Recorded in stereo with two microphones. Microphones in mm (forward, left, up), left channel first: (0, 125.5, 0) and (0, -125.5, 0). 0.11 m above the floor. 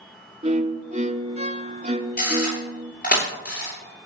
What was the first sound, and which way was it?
A violin, 30° right (ahead or behind).